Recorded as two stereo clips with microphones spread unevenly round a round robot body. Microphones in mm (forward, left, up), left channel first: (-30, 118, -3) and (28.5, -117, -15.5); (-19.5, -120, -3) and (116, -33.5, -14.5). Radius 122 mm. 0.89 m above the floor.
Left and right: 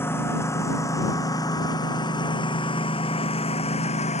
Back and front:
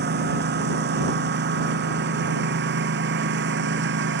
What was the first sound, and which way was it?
A lawn mower, 25° left.